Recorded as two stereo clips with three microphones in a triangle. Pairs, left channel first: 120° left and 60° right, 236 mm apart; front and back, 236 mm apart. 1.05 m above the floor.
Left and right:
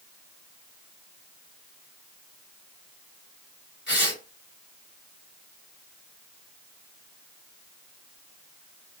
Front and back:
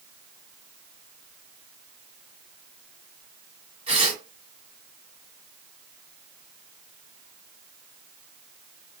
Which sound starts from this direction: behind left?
Tearing paper, at 3.9 s.